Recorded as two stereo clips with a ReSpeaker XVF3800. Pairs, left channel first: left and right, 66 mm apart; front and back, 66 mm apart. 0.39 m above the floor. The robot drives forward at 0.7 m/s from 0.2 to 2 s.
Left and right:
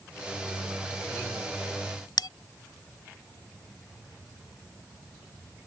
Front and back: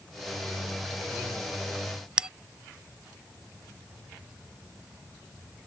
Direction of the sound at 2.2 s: 105° left.